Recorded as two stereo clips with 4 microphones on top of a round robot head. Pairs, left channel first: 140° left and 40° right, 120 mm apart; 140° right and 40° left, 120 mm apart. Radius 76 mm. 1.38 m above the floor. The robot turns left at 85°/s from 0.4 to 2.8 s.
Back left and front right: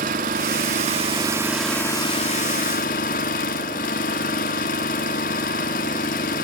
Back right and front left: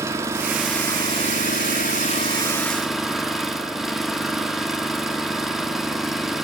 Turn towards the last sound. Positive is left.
turn(degrees=130)